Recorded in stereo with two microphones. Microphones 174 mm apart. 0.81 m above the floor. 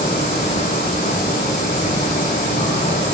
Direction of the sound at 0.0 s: 55° left (ahead or behind).